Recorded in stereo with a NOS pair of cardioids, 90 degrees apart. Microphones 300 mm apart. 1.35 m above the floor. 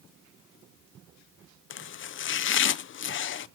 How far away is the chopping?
About 0.5 m.